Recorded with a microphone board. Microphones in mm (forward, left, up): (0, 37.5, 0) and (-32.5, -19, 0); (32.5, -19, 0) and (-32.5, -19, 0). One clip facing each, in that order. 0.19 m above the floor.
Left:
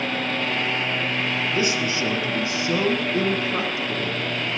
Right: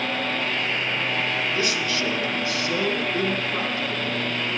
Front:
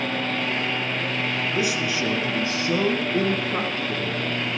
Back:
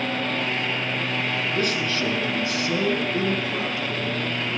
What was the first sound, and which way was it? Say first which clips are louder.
A man speaking: left 2 dB, even; 75° left.